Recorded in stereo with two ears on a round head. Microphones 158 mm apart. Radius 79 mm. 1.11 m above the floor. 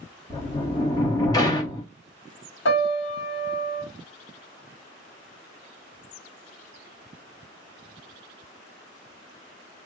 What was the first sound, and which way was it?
A sliding door, 20° left (ahead or behind).